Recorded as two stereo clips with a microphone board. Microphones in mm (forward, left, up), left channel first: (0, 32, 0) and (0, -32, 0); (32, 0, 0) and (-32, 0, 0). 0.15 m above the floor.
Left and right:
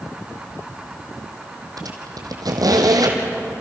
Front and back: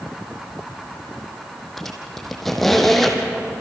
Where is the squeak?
90° right, 3 m.